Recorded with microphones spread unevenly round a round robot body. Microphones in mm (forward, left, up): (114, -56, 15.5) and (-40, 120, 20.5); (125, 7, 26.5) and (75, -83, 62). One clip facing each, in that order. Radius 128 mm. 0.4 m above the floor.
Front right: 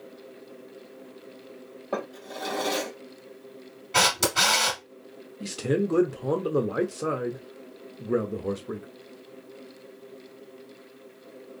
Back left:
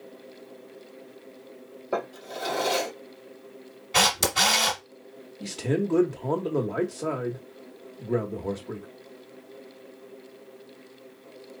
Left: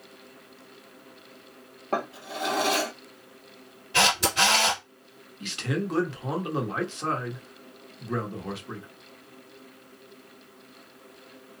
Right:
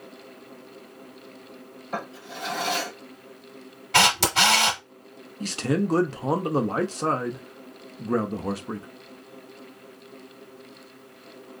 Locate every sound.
1.9 s a drawer: 50° left, 3 m
3.9 s a camera shutter: 140° right, 1.1 m
5.4 s a man speaking: 105° right, 1.0 m